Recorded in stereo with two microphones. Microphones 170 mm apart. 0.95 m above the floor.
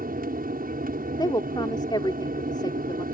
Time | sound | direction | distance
0.0 | an aircraft | 60° right (ahead or behind) | ?
1.2 | a woman speaking | 25° left (ahead or behind) | ?